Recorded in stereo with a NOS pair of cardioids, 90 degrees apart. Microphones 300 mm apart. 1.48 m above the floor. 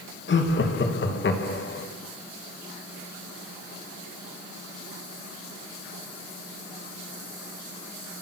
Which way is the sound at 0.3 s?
40° left.